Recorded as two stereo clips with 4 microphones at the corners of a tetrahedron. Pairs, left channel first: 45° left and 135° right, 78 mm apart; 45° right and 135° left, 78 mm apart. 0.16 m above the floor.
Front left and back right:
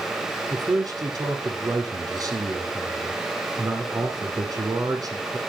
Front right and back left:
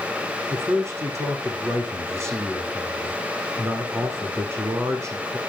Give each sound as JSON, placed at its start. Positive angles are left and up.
{"t": 0.5, "sound": "a man speaking", "azimuth_deg": -175, "distance_m": 7.0}